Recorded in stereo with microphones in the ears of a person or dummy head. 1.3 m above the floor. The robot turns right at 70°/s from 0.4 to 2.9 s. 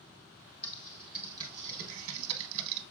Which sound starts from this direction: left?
Typing on a keyboard, at 0.6 s.